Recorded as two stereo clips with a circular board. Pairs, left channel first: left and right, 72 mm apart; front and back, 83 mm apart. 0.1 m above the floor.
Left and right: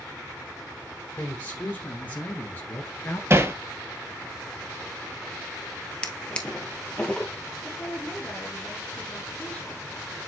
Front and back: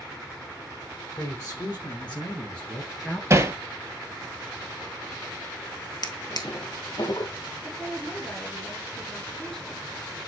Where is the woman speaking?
70° left, 1.5 m.